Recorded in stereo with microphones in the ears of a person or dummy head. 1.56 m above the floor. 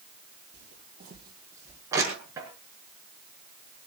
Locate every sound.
0.5 s footsteps: 45° right (ahead or behind), 3.5 m; by 1.8 s 15° right (ahead or behind), 3.5 m
1.9 s crushing: 20° right (ahead or behind), 5.5 m